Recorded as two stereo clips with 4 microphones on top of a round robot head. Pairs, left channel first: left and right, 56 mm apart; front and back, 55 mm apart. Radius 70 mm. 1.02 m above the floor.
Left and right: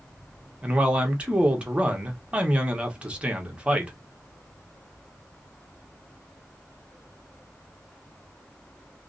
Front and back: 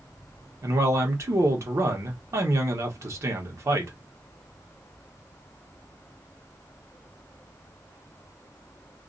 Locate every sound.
0.6 s a man speaking: 160° right, 1.0 m